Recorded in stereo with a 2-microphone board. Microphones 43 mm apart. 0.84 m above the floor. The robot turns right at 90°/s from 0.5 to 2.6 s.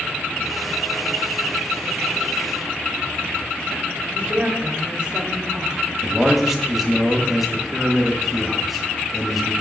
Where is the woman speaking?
25° right (ahead or behind), 1.2 m.